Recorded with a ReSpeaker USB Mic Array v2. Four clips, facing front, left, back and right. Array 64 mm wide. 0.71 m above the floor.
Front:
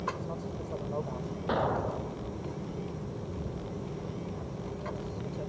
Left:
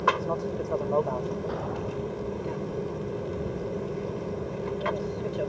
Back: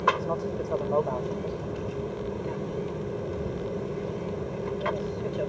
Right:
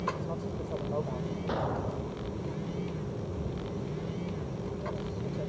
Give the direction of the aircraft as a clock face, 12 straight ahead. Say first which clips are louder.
Left 8 dB, back 10 dB; 7 o'clock.